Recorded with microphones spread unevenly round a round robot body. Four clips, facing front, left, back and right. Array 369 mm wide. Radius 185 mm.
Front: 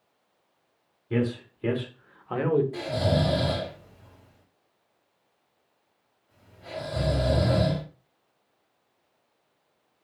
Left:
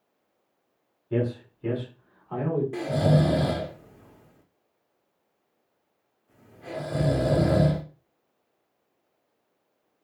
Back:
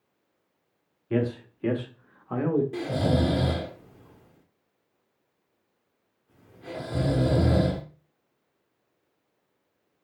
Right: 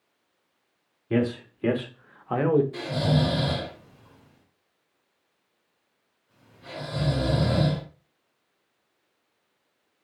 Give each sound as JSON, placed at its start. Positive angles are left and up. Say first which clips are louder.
{"t": 1.1, "sound": "a man speaking", "louder": "right 2 dB, even", "azimuth_deg": -95, "distance_m": 1.8}
{"t": 2.7, "sound": "snoring", "louder": "left 3 dB, even", "azimuth_deg": 150, "distance_m": 0.8}